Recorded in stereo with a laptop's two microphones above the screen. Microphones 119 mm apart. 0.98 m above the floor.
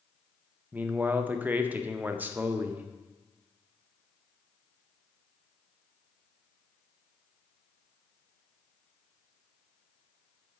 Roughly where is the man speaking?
Centre.